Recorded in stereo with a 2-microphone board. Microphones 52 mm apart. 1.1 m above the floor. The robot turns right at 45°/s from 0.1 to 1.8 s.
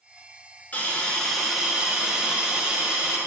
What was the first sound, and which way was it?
A hiss, 150° left.